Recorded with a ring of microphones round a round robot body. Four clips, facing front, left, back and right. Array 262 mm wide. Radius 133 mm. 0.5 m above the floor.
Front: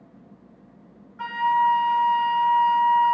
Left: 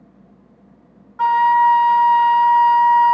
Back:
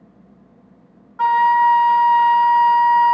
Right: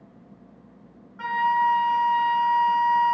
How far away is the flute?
About 0.7 m.